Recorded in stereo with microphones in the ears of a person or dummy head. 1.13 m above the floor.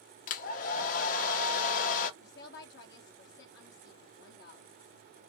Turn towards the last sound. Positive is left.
turn(degrees=60)  # may be behind; listen again after turning